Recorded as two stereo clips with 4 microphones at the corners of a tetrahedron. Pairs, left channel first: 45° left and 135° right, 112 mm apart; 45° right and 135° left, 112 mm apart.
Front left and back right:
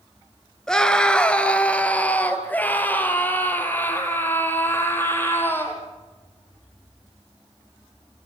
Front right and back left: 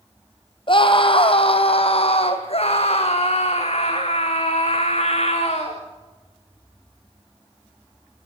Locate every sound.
0.7 s a scream: 40° right, 2.5 m; by 5.8 s 25° right, 7 m